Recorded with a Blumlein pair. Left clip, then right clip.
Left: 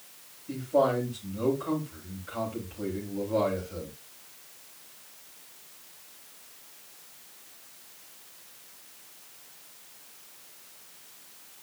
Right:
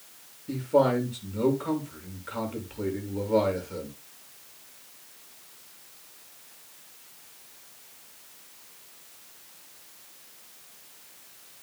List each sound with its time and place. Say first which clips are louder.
0.5 s a man speaking: right 2 dB; 30° right, 6.5 m